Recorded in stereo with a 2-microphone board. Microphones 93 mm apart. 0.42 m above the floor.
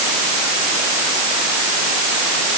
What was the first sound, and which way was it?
Only background noise.